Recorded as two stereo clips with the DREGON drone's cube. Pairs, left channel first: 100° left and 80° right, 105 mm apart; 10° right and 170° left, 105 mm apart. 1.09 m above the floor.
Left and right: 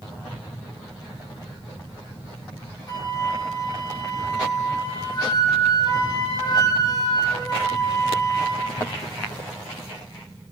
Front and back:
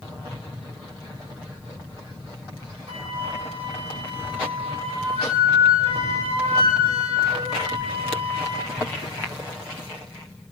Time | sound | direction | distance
2.9 | a flute | 145° left | 2 m